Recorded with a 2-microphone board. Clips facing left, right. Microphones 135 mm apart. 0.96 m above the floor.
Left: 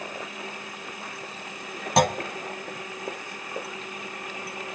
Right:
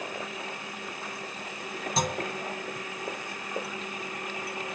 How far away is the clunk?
About 0.7 m.